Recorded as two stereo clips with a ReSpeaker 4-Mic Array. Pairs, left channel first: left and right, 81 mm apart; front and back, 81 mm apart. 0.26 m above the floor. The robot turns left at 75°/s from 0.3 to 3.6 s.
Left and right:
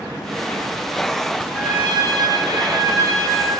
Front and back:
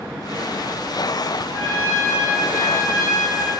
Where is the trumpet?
155° left, 1.9 m; by 3.5 s 10° left, 1.9 m.